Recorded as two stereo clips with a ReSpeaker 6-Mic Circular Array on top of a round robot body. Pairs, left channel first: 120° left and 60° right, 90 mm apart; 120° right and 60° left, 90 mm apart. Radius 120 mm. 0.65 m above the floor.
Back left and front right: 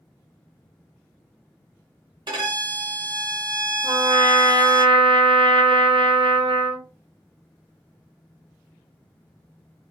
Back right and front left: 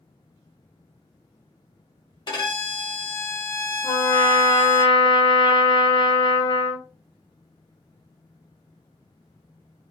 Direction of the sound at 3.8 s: 80° right.